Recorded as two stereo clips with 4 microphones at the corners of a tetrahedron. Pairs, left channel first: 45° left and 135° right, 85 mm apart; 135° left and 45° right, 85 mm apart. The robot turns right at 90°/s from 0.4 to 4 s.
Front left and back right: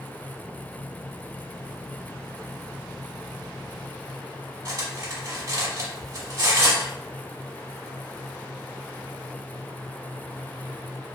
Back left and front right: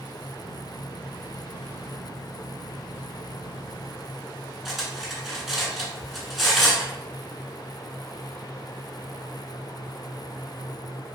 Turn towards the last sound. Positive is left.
turn(degrees=-135)